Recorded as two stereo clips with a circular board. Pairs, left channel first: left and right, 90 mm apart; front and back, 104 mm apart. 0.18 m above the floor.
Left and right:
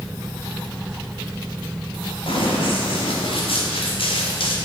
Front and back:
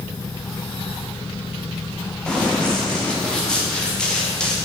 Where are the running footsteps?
80° left, 5.5 m.